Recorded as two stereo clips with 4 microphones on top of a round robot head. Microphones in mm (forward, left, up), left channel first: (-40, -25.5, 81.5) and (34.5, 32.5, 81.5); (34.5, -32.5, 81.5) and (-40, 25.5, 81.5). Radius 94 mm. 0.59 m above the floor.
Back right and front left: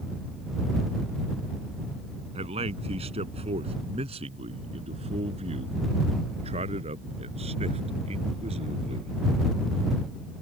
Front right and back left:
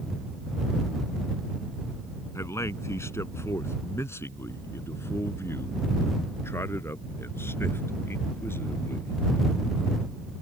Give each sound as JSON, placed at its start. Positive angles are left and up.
{"t": 2.4, "sound": "a man speaking", "azimuth_deg": 25}